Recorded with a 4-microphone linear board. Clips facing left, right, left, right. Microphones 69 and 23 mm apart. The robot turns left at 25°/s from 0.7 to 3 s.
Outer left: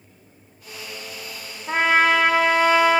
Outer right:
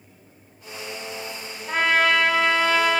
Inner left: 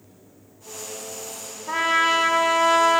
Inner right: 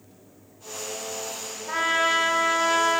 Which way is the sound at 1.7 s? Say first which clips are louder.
Outer left 2 dB, inner left 3 dB; 25° left (ahead or behind).